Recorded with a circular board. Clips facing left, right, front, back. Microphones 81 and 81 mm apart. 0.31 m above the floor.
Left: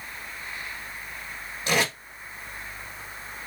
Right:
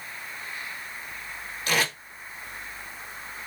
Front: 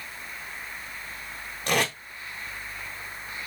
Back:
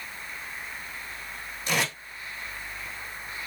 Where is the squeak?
I don't hear a squeak.